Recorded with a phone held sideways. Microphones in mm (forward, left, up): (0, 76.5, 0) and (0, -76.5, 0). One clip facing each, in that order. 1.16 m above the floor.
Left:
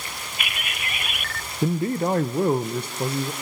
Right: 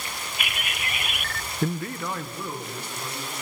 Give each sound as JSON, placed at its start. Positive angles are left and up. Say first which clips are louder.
{"t": 1.6, "sound": "a man speaking", "louder": "left 6 dB", "side_deg": 10, "distance_m": 0.5}